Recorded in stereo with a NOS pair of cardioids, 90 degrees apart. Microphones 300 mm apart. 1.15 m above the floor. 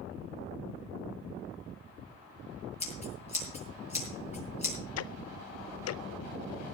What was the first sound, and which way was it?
Scissors, 20° left.